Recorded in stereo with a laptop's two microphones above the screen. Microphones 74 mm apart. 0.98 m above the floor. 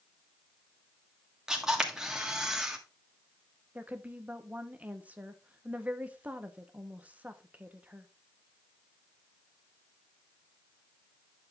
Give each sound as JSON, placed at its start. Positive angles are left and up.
{"t": 1.5, "sound": "a camera shutter", "side_deg": -10, "distance_m": 1.5}
{"t": 3.8, "sound": "a woman speaking", "side_deg": -20, "distance_m": 0.8}